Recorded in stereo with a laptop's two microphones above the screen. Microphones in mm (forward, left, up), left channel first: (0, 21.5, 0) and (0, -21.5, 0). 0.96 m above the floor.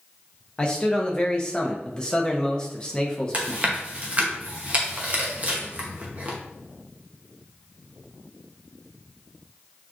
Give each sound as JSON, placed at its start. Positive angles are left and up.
{"t": 0.6, "sound": "a man speaking", "side_deg": 20, "distance_m": 0.7}
{"t": 3.3, "sound": "chewing", "side_deg": -35, "distance_m": 0.8}